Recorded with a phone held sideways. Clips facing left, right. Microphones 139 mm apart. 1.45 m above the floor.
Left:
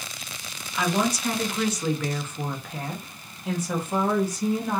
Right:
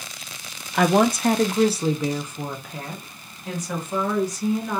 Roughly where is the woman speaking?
Right.